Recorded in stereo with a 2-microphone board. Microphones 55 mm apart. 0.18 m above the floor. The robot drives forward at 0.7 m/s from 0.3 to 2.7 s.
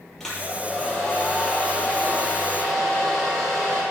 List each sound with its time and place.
0.2 s a hair dryer: 10° left (ahead or behind), 5 m; by 3.8 s 5° left (ahead or behind), 6.5 m